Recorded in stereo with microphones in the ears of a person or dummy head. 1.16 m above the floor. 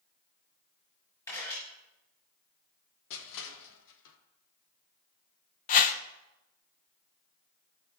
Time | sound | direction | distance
1.3 | a camera shutter | 20° left (ahead or behind) | 7 m
3.1 | crushing | 70° left (ahead or behind) | 1.3 m
5.7 | a whoosh | 40° left (ahead or behind) | 0.7 m